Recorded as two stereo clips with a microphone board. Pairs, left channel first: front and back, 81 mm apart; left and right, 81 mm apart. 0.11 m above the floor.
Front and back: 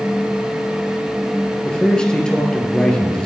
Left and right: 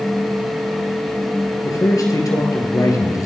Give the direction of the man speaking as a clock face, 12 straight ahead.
9 o'clock.